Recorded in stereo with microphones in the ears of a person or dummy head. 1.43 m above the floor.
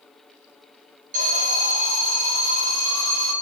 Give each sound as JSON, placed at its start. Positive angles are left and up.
{"t": 1.1, "sound": "an alarm", "side_deg": -40, "distance_m": 7.5}